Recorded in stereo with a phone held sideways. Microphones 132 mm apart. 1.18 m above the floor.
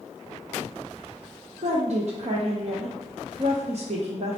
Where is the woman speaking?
60° right (ahead or behind), 0.6 m.